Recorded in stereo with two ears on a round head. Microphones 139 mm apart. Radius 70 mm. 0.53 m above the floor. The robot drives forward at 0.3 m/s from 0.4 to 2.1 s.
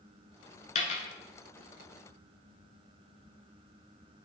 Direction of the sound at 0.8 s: 45° left (ahead or behind).